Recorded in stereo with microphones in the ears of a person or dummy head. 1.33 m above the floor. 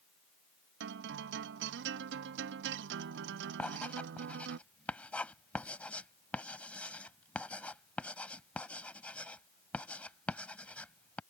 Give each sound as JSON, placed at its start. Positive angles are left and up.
{"t": 0.8, "sound": "a guitar", "side_deg": -70}
{"t": 3.6, "sound": "writing", "side_deg": 10}